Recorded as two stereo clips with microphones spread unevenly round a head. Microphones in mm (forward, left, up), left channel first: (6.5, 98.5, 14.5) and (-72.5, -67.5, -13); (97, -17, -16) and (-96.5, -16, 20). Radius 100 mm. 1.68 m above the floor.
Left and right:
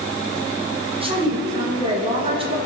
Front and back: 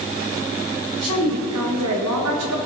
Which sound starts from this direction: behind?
A woman speaking, at 1.0 s.